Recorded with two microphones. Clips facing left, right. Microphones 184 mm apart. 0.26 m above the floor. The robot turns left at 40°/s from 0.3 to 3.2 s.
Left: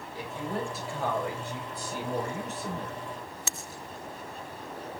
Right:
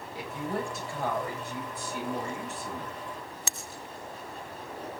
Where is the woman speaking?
165° right, 4 m; by 3.0 s 85° left, 4 m.